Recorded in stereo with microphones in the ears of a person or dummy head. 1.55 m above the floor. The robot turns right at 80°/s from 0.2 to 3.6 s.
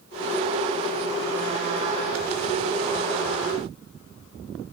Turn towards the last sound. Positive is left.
No sound to turn to.